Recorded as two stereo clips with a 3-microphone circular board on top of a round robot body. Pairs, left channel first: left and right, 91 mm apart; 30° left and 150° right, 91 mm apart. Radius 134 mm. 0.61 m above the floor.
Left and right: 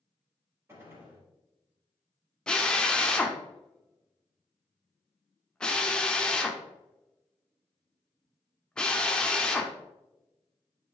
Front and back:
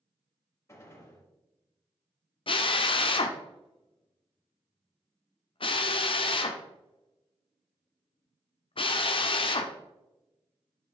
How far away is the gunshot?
About 3.5 m.